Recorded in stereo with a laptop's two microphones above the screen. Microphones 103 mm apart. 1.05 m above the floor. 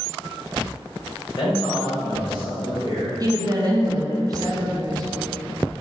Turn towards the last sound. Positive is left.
turn(degrees=-40)  # may be behind; listen again after turning